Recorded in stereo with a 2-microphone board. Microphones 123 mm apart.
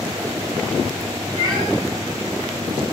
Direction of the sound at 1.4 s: 35° right (ahead or behind).